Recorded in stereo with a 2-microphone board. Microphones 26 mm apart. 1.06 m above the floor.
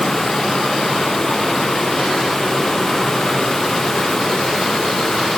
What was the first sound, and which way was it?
Only background noise.